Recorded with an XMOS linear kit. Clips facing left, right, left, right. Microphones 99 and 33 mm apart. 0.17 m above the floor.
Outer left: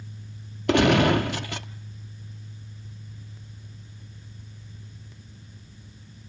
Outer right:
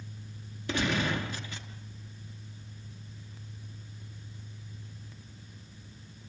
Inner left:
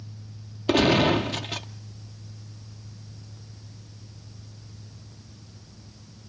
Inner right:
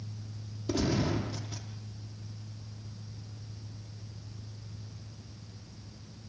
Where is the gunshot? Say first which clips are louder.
Outer left 11 dB, inner left 11 dB; 75° left (ahead or behind), 0.9 m.